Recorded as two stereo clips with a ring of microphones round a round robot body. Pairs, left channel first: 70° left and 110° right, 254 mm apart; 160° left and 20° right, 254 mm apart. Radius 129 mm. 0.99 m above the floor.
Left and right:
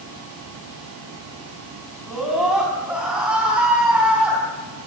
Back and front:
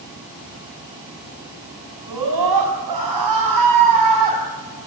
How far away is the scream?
About 7.5 m.